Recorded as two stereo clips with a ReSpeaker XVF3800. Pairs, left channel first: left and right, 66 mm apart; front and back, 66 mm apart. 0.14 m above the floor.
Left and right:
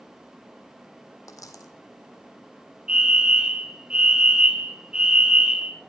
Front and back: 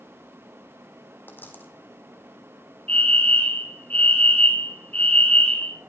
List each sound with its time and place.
1.3 s a dropped coin: 60° left, 2 m
2.9 s a fire alarm: 35° right, 2.5 m